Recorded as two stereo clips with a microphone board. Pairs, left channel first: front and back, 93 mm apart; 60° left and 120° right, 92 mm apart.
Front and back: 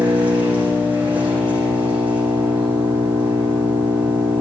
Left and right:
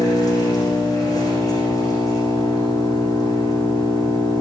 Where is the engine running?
110° left, 7.5 m.